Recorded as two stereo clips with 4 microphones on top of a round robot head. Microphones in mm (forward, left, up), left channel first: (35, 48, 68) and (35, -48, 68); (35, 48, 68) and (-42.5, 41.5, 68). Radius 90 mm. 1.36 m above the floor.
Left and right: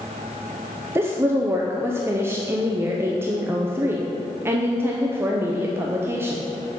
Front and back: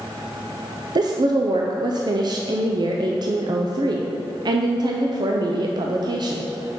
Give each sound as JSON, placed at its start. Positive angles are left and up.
{"t": 0.9, "sound": "a woman speaking", "azimuth_deg": -155, "distance_m": 0.6}